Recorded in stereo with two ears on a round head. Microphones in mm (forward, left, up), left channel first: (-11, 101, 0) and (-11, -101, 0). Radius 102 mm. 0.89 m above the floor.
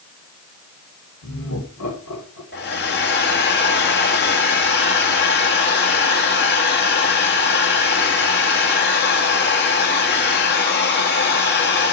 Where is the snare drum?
I don't hear a snare drum.